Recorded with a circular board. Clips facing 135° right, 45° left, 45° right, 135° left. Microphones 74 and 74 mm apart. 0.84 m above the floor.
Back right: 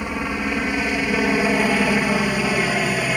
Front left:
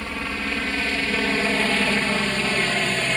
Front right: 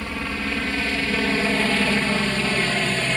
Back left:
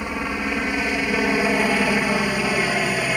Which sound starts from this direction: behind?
A helicopter, at 0.0 s.